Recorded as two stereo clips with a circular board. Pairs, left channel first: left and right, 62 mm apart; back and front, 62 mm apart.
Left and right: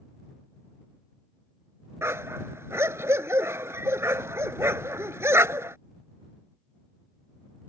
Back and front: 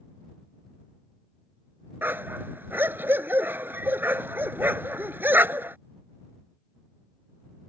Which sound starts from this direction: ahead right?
A dog barking, at 2.0 s.